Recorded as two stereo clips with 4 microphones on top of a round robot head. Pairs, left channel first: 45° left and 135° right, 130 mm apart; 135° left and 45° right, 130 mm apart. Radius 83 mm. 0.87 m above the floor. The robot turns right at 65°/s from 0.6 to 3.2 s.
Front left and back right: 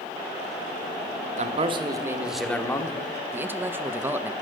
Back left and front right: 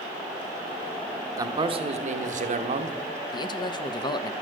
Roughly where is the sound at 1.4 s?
Right.